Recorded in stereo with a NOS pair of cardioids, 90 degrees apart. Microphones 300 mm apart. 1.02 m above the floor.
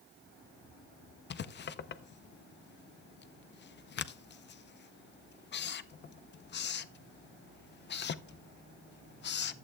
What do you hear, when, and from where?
1.3 s writing: 35° left, 0.6 m